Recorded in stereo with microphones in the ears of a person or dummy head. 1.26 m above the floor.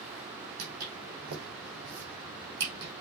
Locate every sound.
0.6 s footsteps: 75° right (ahead or behind), 4 m; by 2.9 s 60° right (ahead or behind), 3.5 m